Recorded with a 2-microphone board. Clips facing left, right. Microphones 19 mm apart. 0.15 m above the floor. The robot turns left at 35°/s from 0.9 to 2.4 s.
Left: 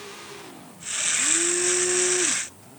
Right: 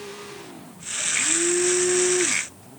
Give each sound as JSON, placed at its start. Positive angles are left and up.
{"t": 1.1, "sound": "a blender", "azimuth_deg": -35, "distance_m": 2.5}